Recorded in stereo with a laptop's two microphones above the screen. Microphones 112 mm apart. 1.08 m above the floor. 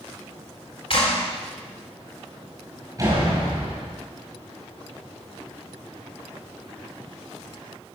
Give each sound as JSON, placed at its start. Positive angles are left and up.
{"t": 0.9, "sound": "a clap", "side_deg": 50, "distance_m": 3.5}
{"t": 3.0, "sound": "a door slam", "side_deg": -30, "distance_m": 5.5}